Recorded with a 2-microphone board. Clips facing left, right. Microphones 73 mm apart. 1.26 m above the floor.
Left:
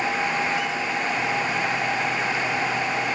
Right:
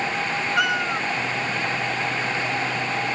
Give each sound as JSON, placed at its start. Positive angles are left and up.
{"t": 0.6, "sound": "a cat meowing", "side_deg": -70}